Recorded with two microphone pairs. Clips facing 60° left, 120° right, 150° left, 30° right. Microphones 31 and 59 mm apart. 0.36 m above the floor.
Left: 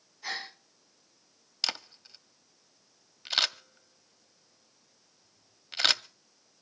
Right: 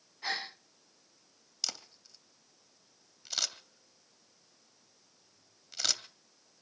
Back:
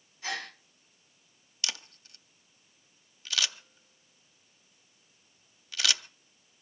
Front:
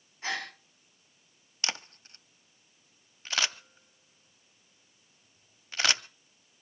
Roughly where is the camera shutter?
Ahead.